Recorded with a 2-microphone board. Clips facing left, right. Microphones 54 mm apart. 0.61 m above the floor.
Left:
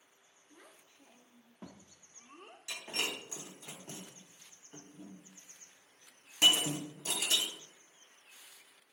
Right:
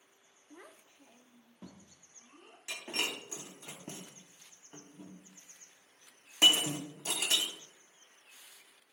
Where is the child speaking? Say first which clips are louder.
Right 5 dB; 35° right (ahead or behind), 0.9 m; by 2.6 s 55° left (ahead or behind), 1.4 m.